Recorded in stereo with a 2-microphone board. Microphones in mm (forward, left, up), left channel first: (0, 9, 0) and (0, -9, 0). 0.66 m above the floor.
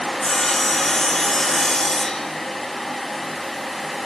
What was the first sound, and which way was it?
Sawing, 25° left (ahead or behind).